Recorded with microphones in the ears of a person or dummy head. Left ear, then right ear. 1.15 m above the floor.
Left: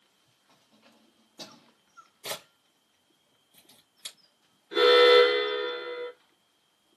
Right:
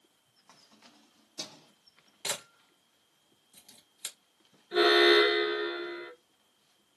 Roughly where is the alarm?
Centre.